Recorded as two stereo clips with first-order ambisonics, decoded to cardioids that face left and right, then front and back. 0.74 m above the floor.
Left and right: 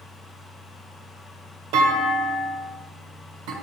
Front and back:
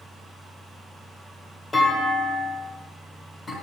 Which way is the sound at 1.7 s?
80° right.